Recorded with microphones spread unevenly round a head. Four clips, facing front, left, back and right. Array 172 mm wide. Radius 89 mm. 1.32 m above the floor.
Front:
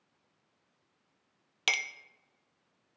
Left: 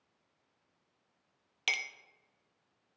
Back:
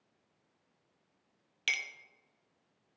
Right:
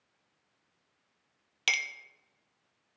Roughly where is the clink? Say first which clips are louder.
Right 4 dB, front 4 dB; ahead.